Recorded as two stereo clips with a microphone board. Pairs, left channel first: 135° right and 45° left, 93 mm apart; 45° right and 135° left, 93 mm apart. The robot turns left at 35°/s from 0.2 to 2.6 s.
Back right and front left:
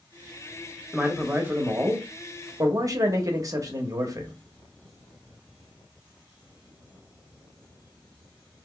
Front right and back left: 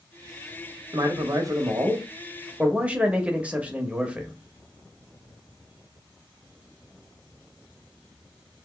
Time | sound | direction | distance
0.9 | a man speaking | 125° left | 0.8 m